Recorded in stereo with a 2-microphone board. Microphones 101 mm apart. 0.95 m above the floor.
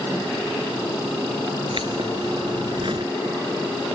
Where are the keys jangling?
60° right (ahead or behind); by 3.1 s 55° right (ahead or behind).